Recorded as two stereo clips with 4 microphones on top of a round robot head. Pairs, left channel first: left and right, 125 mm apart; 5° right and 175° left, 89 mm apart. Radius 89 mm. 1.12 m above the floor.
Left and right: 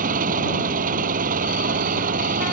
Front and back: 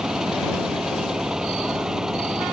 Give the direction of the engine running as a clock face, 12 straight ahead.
3 o'clock.